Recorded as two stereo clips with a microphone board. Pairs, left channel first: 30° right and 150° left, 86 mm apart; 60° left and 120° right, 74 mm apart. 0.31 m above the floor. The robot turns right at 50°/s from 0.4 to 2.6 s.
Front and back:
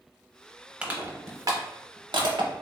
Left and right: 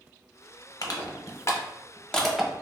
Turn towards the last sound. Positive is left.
turn(degrees=165)